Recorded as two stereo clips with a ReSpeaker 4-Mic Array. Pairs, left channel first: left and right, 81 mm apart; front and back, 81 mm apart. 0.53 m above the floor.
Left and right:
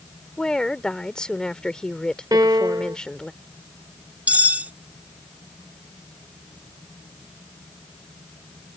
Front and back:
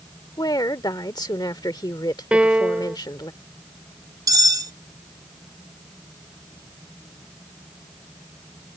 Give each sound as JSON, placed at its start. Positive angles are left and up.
{"t": 0.4, "sound": "a woman speaking", "azimuth_deg": 10}
{"t": 2.3, "sound": "a piano", "azimuth_deg": -105}
{"t": 4.3, "sound": "cutlery clinking", "azimuth_deg": -155}